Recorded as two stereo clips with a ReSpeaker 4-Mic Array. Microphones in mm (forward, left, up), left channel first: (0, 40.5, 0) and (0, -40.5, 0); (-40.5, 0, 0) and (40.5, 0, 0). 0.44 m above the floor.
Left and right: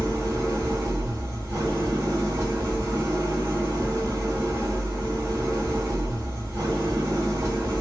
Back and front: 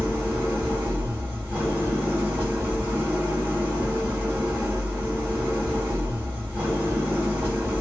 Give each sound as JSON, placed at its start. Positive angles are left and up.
{"t": 0.0, "sound": "an engine running", "azimuth_deg": -50, "distance_m": 1.3}